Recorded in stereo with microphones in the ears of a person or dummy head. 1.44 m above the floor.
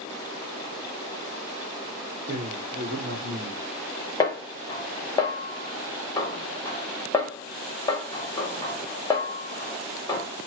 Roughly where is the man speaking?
Right.